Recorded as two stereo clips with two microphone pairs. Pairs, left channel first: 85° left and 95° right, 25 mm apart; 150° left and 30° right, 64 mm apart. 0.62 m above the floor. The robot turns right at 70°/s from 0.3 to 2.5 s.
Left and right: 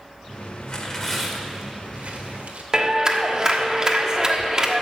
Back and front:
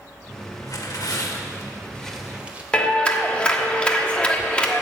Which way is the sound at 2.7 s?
140° right.